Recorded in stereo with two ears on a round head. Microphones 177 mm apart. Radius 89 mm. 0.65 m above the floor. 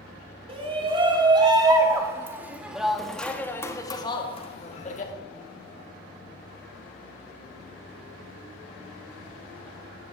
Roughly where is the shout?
Right.